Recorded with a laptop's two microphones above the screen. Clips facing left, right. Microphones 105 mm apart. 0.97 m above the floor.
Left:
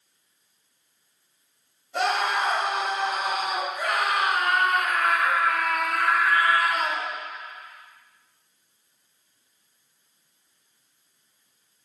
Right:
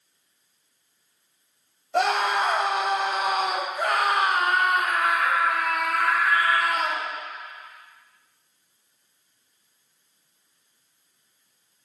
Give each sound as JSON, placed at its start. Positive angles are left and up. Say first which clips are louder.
{"t": 1.9, "sound": "a scream", "louder": "right 2 dB", "side_deg": -80, "distance_m": 1.7}